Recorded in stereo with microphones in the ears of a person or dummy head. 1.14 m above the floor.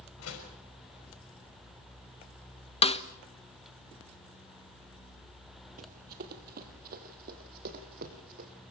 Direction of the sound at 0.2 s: 85° left.